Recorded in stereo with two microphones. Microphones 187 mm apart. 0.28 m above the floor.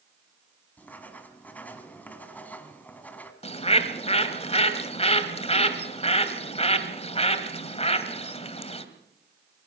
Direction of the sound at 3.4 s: 35° left (ahead or behind).